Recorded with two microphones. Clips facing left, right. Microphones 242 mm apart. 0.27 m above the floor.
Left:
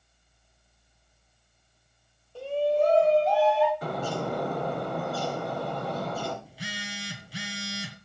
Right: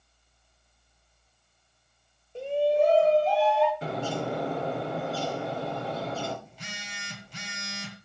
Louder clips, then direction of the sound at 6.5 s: Left 6 dB; 5° left (ahead or behind).